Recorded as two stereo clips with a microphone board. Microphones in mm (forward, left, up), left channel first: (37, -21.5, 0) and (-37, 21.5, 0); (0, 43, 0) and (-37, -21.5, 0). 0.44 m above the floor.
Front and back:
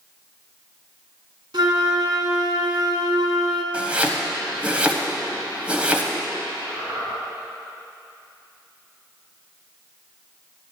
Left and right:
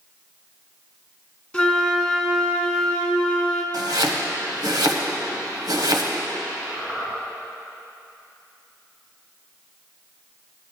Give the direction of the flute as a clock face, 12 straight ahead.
7 o'clock.